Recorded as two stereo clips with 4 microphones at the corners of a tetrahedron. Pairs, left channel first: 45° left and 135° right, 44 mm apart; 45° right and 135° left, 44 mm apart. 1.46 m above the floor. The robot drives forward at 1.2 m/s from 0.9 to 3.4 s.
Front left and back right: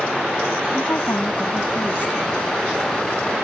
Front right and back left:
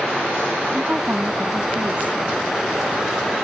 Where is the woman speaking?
75° left; by 2.1 s 85° left.